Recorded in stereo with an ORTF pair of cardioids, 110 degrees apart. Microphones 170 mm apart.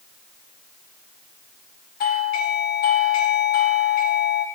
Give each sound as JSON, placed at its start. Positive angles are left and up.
{"t": 2.0, "sound": "a doorbell", "azimuth_deg": 60, "distance_m": 2.5}